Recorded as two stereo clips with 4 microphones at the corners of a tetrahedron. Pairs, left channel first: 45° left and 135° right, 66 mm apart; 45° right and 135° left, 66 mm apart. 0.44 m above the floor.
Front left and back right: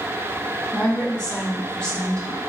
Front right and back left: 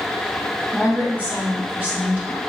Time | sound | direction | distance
0.7 | a woman speaking | 100° left | 1.2 m